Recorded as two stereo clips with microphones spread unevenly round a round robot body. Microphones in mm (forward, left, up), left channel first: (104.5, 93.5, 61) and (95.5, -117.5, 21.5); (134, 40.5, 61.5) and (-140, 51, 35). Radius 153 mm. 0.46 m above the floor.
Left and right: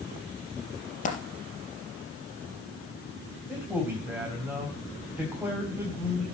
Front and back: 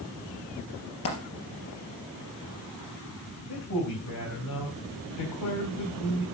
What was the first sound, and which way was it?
A dropped coin, 35° left.